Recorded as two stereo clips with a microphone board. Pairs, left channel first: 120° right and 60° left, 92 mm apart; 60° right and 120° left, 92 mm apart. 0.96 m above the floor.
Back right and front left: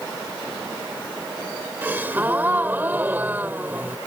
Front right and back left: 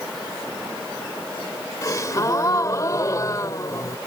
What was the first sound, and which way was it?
A gasp, 10° right.